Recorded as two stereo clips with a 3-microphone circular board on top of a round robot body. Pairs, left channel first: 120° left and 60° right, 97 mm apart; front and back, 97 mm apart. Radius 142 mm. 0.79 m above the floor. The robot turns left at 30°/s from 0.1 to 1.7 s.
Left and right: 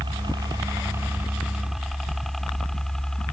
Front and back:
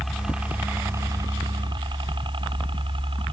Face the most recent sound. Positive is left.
turn(degrees=-155)